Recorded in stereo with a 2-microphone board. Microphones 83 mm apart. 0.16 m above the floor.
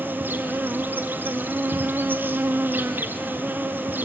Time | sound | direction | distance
0.0 | an insect | 25° right (ahead or behind) | 1.4 m